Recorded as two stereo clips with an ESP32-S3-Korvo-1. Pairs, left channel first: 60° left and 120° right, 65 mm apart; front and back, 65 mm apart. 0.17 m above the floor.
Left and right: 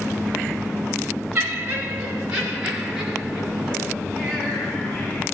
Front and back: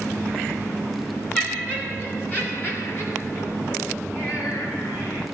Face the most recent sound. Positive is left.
turn(degrees=-25)